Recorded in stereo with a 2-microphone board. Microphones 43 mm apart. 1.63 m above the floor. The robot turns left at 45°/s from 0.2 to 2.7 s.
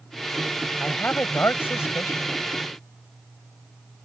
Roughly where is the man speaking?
Behind left.